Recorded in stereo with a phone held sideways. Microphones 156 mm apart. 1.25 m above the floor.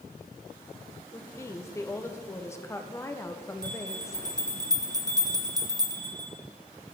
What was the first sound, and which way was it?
A woman speaking, 20° left (ahead or behind).